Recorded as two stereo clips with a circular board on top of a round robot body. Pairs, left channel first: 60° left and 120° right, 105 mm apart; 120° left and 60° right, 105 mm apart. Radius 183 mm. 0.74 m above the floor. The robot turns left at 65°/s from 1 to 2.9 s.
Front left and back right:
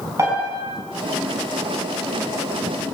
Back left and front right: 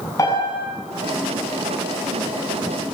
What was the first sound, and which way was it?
A piano, straight behind.